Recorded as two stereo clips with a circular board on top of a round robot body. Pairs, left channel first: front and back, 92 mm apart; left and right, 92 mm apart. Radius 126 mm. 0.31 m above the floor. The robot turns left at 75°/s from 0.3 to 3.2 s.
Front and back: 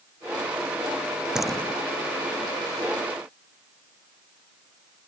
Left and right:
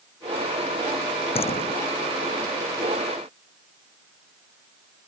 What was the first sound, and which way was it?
A door slam, 95° left.